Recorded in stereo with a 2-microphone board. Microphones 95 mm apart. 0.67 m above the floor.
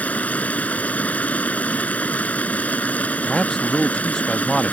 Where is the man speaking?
5° left (ahead or behind).